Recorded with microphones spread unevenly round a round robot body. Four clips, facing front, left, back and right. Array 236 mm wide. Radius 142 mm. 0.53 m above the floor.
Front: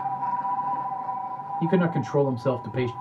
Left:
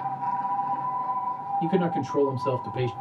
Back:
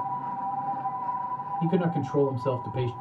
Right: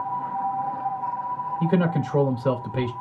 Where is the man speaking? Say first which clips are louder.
Right 2 dB, front 4 dB; 30° right, 2 m.